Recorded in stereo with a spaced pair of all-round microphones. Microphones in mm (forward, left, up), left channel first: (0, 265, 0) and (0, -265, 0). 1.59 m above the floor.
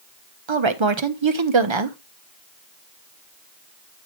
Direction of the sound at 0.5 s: 60° right (ahead or behind).